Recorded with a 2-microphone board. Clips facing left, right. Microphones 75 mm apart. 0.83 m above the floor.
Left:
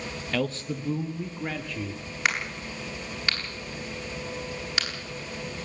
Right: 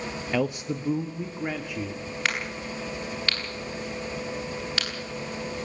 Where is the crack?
15° left (ahead or behind), 8 m.